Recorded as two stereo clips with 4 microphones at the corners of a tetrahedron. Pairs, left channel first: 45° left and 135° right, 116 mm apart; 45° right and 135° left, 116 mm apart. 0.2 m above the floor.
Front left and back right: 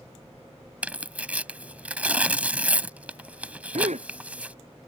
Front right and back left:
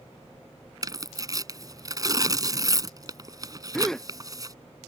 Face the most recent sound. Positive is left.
turn(degrees=-130)